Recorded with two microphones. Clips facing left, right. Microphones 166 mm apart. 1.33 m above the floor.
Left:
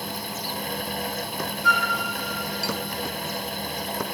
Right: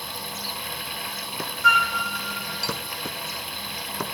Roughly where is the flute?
Right.